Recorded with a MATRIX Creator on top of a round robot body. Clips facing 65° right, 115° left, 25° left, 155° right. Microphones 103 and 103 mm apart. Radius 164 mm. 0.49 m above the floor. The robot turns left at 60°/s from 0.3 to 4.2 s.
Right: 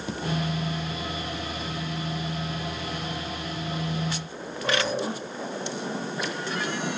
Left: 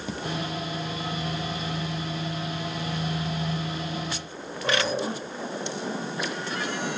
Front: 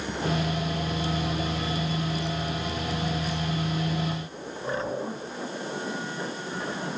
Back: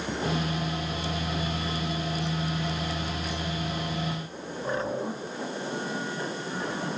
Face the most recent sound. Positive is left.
No sound to turn to.